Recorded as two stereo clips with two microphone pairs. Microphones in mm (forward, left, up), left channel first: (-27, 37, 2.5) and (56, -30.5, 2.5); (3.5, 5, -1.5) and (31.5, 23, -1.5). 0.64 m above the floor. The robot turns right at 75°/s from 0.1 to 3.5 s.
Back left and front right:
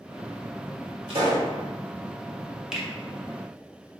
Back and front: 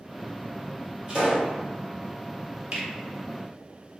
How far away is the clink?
No clink in this recording.